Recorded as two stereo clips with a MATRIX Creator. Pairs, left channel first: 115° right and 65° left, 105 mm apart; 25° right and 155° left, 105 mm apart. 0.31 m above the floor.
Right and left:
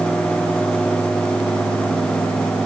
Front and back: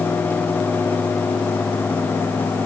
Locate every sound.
Only background noise.